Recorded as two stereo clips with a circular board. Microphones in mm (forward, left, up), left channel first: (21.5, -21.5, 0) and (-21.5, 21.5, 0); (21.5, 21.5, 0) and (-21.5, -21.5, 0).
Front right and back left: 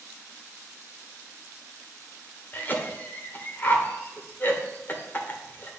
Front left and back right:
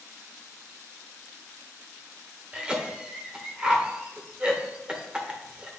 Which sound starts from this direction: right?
A cough, at 2.5 s.